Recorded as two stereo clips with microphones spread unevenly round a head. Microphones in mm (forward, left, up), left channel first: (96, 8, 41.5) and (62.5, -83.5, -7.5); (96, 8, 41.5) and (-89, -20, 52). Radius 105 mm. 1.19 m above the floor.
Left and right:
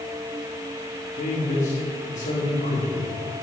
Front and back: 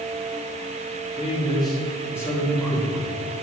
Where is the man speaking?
70° left, 2.5 m; by 3.1 s 95° left, 4.5 m.